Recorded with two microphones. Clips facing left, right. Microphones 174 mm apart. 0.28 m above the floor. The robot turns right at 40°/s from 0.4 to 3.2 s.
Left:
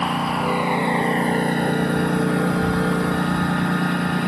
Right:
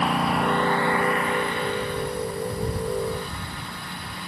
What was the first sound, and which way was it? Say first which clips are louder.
A lawn mower: left 1 dB; straight ahead.